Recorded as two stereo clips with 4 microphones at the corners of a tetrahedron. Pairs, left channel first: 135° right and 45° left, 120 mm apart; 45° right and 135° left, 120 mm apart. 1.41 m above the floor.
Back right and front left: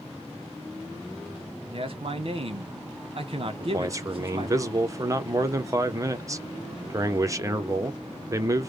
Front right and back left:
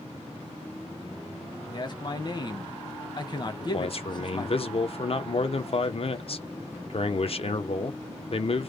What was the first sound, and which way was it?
A man speaking, 5° left.